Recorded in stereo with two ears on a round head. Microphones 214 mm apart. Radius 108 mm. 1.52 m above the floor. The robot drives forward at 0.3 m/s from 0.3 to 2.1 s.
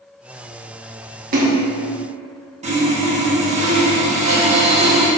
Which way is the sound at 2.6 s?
30° right (ahead or behind).